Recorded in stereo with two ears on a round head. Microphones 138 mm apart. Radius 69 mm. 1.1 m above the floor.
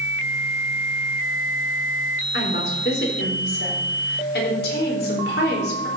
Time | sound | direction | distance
2.3 | a woman speaking | 70° left (ahead or behind) | 4 m